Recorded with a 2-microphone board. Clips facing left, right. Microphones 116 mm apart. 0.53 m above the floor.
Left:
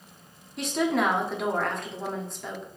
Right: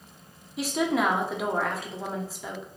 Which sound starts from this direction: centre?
A woman speaking, at 0.6 s.